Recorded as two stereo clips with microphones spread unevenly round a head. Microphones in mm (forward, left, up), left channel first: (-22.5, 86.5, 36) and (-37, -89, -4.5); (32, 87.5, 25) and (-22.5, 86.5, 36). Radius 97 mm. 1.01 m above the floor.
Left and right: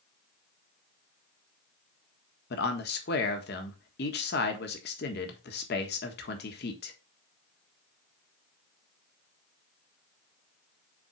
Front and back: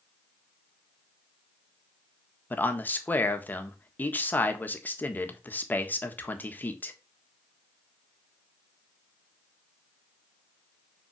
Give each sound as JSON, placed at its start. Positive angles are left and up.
{"t": 2.5, "sound": "a man speaking", "azimuth_deg": 45, "distance_m": 1.5}